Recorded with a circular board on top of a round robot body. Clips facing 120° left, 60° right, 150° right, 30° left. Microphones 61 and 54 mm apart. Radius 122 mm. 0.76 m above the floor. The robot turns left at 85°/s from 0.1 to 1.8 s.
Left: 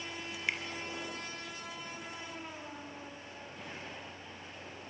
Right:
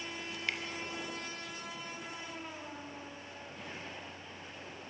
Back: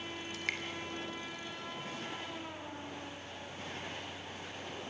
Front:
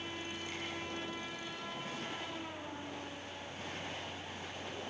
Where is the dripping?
155° right, 4 m; by 0.6 s 175° right, 4 m.